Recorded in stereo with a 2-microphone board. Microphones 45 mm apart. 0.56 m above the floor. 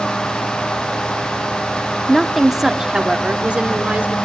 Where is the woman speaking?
5° left (ahead or behind), 0.9 m; by 4.2 s 35° right (ahead or behind), 1.6 m.